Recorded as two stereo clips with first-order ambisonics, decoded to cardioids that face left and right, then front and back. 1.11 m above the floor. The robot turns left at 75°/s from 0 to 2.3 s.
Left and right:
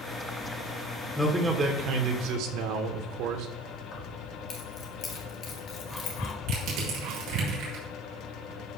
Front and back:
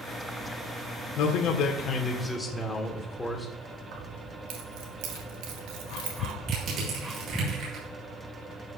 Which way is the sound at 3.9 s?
150° left.